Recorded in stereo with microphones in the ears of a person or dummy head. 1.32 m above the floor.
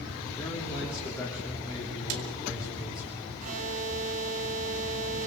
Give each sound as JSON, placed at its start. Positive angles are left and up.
{"t": 0.4, "sound": "a man speaking", "side_deg": 20, "distance_m": 3.5}
{"t": 2.1, "sound": "a snare drum", "side_deg": -80, "distance_m": 3.0}
{"t": 3.4, "sound": "an alarm", "side_deg": -45, "distance_m": 3.0}